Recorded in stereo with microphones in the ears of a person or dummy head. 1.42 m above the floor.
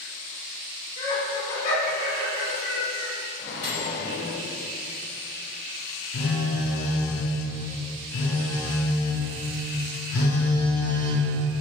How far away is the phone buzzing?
About 0.7 m.